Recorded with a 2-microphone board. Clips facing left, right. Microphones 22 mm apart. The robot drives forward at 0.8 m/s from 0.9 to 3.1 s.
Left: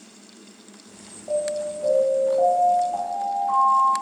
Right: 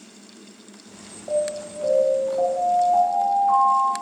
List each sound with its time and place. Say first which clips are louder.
1.3 s an alarm: even; 15° right (ahead or behind), 1.3 m; by 3.9 s 5° right (ahead or behind), 3 m